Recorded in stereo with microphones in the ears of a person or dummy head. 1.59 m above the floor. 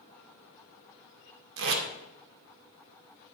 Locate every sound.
1.6 s tape being pulled: 65° right (ahead or behind), 2.5 m